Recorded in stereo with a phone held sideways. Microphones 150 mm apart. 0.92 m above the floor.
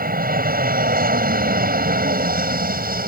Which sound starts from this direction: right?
An aircraft, at 0.0 s.